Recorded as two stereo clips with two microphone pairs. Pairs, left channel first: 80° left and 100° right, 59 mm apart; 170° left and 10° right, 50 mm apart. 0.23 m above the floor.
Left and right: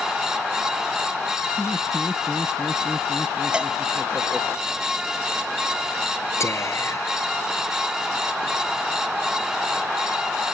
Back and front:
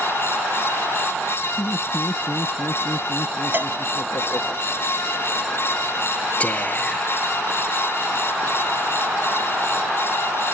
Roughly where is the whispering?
Left.